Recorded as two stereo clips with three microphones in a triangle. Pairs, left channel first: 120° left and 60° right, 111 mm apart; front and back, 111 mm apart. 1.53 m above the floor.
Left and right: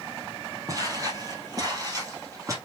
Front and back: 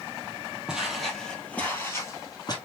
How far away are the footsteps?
About 2 m.